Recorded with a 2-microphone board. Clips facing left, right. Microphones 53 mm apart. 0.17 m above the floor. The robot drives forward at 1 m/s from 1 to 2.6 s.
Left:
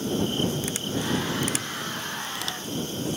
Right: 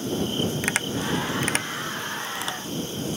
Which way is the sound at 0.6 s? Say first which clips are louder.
Right 3 dB; 70° right (ahead or behind).